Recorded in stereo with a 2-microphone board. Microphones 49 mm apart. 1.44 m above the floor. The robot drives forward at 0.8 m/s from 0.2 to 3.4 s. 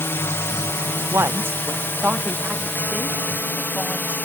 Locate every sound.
0.0 s a drone: 60° left (ahead or behind); by 4.3 s 40° left (ahead or behind)
1.1 s a woman speaking: 60° right (ahead or behind); by 4.2 s 15° right (ahead or behind)